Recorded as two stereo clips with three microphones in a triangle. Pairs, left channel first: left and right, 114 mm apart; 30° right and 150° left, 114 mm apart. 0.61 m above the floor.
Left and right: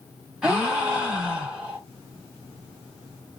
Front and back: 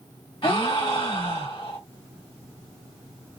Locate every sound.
0.4 s a gasp: 10° right, 1.4 m